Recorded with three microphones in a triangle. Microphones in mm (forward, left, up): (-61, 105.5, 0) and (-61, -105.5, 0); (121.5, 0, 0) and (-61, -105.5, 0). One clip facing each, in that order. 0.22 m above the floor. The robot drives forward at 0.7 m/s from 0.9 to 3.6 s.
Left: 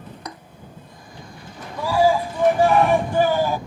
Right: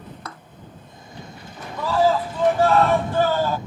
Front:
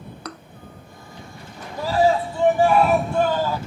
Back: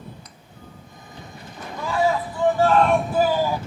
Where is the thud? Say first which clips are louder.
Left 4 dB, front 14 dB; 15° left.